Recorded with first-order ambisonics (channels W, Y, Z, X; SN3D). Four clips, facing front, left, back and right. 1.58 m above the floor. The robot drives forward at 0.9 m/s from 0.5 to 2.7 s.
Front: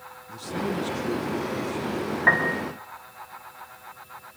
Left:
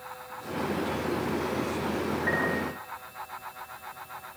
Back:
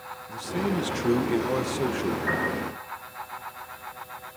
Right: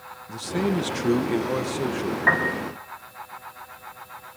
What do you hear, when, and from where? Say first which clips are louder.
0.3 s a man speaking: right 7 dB, back 1 dB; 100° right, 1.3 m; by 2.2 s 145° right, 2 m
2.3 s a piano: right 8 dB, front 10 dB; 40° right, 6.5 m